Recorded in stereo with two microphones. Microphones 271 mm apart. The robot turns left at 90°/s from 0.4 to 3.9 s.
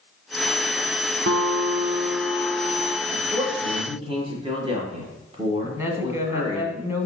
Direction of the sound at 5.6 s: 10° right (ahead or behind).